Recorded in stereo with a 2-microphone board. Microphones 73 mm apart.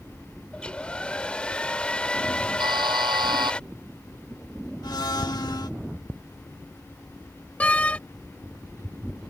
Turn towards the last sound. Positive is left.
turn(degrees=20)  # may be behind; listen again after turning